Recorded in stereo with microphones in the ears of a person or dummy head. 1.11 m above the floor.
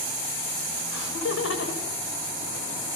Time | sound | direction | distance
0.9 | laughter | 70° left (ahead or behind) | 5.5 m